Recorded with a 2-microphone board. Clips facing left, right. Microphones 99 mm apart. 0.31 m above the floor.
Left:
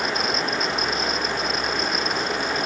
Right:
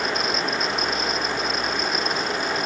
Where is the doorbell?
I don't hear a doorbell.